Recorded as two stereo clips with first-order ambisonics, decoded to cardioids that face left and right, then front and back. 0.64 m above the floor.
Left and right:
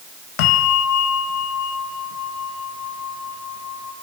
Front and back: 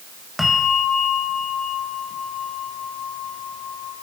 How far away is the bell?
About 2.5 m.